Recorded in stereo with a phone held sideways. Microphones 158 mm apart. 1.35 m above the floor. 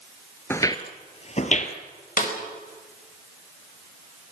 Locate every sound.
0.5 s footsteps: 15° left (ahead or behind), 1.5 m; by 1.8 s 50° left (ahead or behind), 2.5 m
2.2 s a snare drum: 60° left (ahead or behind), 5 m